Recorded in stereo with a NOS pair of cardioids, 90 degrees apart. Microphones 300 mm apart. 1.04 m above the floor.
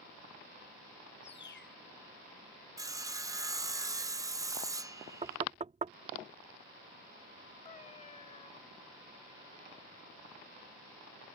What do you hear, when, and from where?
1.2 s a bird: 35° left
2.8 s sawing: 10° right
5.2 s knocking: 25° right
7.7 s a cat meowing: 25° left